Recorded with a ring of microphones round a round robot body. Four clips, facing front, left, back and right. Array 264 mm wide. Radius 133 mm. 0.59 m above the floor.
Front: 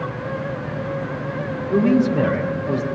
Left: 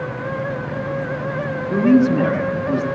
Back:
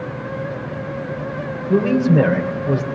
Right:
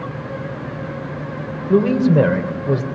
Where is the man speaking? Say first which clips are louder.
Even, back 1 dB; 110° right, 2.5 m.